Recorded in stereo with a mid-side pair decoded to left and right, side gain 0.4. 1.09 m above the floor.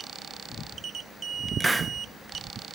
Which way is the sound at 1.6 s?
20° right.